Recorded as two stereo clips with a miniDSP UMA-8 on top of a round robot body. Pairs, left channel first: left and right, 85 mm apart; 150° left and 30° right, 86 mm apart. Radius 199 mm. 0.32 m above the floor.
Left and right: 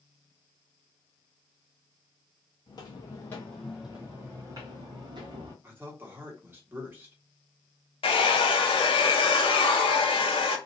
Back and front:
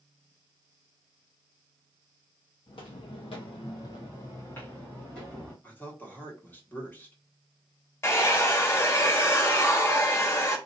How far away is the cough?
I don't hear a cough.